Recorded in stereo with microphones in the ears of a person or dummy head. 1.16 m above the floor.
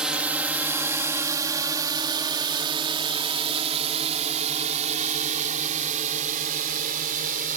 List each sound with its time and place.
0.0 s a drone: 5° right (ahead or behind); by 7.6 s 45° right (ahead or behind)